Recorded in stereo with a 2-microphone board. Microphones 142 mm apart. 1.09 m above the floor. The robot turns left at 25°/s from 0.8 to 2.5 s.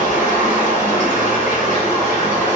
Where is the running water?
65° left, 1.8 m; by 2.6 s 25° left, 1.8 m.